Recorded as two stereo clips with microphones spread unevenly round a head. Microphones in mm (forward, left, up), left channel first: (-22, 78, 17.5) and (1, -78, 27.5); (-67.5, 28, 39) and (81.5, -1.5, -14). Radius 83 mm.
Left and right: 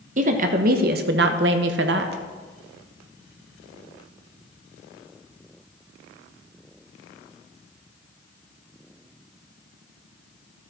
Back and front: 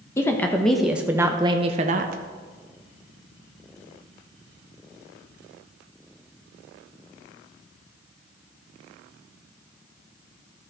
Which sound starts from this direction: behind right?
A woman speaking, at 0.2 s.